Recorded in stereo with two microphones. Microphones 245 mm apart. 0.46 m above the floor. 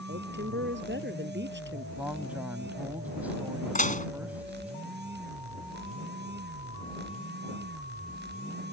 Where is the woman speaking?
45° right (ahead or behind).